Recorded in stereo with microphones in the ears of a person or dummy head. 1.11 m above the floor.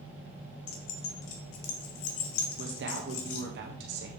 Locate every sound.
0.7 s keys jangling: 75° left (ahead or behind), 0.9 m
2.6 s a woman speaking: 50° right (ahead or behind), 1.3 m